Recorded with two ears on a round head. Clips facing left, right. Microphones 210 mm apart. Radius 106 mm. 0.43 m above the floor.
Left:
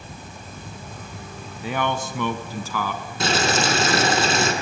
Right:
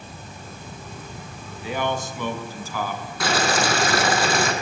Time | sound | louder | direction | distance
1.6 | a man speaking | left 1 dB | 45° left (ahead or behind) | 2.5 m
3.2 | boiling | left 1 dB | 20° left (ahead or behind) | 4.5 m